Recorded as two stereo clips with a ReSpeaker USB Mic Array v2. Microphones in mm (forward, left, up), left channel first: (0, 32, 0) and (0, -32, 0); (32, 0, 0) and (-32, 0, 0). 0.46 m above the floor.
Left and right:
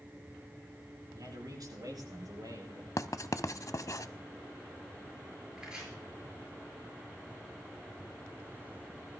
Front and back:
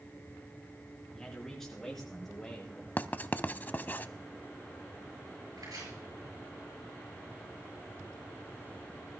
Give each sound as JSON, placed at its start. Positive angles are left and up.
{"t": 1.1, "sound": "a man speaking", "azimuth_deg": -85, "distance_m": 5.5}
{"t": 3.0, "sound": "writing", "azimuth_deg": 60, "distance_m": 0.6}
{"t": 5.6, "sound": "chopping", "azimuth_deg": -165, "distance_m": 8.0}